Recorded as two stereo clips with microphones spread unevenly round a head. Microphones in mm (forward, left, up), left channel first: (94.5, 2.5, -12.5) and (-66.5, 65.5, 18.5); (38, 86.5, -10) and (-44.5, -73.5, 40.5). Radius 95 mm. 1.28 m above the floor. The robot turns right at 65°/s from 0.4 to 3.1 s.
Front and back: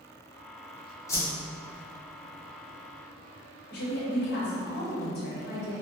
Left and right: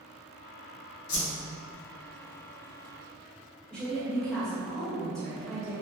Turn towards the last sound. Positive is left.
turn(degrees=-15)